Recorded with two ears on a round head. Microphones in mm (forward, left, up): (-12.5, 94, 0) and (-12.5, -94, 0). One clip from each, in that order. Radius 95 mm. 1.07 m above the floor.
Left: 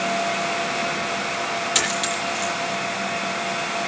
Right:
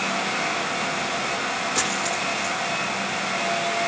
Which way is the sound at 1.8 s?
85° left.